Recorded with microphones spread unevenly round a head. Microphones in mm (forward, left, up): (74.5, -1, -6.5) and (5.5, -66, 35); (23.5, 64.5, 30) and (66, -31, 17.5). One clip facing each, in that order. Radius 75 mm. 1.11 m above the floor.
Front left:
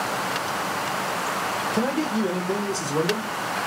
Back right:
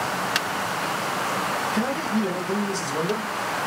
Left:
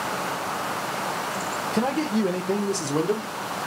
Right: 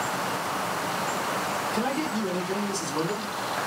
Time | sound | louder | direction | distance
1.7 | a man speaking | front left 3 dB, left 7 dB | 65° left | 0.7 m